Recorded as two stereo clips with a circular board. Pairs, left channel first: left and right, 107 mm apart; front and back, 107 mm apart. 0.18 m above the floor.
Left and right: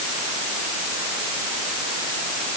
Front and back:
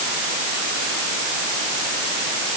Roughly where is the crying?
No crying in this recording.